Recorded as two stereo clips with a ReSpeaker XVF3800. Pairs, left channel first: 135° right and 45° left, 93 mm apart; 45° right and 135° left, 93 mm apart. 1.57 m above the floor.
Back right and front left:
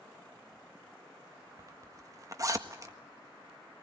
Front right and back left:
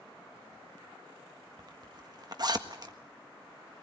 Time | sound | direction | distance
1.6 | a zipper | 95° left | 1.5 m